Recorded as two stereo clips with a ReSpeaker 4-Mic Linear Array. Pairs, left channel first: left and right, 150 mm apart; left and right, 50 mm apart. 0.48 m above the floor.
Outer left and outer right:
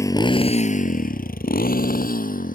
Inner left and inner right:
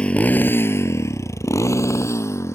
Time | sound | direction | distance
0.0 | a motorcycle | 20° left (ahead or behind) | ?